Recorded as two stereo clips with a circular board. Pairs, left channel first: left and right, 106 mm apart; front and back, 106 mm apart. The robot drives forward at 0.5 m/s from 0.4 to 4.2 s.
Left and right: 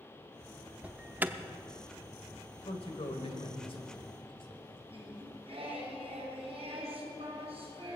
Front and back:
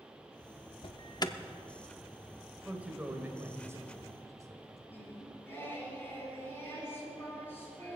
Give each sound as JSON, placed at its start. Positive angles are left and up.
{"t": 0.8, "sound": "an alarm", "azimuth_deg": -15, "distance_m": 0.8}
{"t": 2.6, "sound": "a man speaking", "azimuth_deg": 100, "distance_m": 1.8}
{"t": 4.9, "sound": "singing", "azimuth_deg": -70, "distance_m": 4.0}